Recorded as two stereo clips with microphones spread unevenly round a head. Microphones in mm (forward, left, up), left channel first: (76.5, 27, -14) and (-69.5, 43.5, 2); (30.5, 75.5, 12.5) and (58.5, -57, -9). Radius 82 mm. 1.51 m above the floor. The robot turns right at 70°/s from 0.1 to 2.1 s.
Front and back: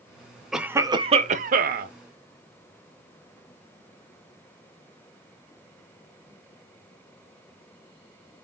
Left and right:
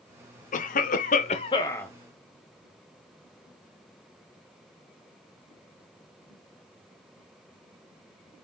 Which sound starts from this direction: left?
A cough, at 0.5 s.